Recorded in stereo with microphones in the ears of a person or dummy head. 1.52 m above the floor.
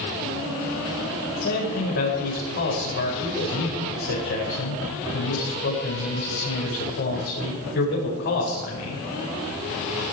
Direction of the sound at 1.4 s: 60° left (ahead or behind).